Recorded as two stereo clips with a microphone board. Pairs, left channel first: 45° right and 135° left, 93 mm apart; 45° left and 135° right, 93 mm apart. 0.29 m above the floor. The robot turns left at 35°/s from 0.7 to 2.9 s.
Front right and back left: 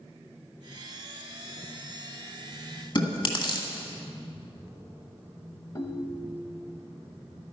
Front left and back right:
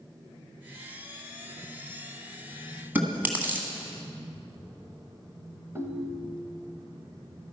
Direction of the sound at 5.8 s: 80° right.